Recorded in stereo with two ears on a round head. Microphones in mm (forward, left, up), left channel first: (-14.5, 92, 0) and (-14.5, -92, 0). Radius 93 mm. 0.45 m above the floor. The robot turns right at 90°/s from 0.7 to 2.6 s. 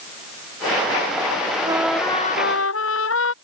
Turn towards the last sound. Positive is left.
turn(degrees=65)